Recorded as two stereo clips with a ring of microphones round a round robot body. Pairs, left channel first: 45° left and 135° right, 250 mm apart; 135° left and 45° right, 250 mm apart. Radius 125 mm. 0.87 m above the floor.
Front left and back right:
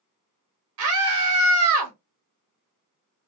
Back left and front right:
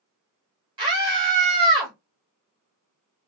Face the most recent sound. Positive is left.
turn(degrees=-115)